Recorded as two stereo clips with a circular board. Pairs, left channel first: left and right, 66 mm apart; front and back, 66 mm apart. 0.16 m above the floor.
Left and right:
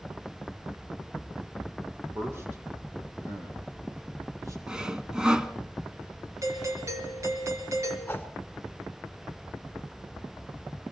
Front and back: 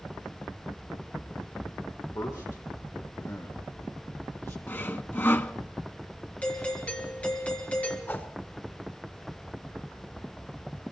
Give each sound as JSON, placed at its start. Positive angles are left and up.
{"t": 2.1, "sound": "a man speaking", "azimuth_deg": -35, "distance_m": 6.5}
{"t": 4.7, "sound": "sawing", "azimuth_deg": -20, "distance_m": 1.0}
{"t": 6.4, "sound": "a doorbell", "azimuth_deg": -65, "distance_m": 4.0}
{"t": 8.1, "sound": "a whoosh", "azimuth_deg": 40, "distance_m": 1.4}